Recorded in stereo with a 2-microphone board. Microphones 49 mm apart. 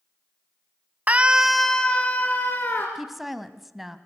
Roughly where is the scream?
Right.